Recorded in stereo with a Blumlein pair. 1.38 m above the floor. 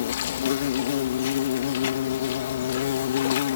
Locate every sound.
0.0 s an insect: 60° left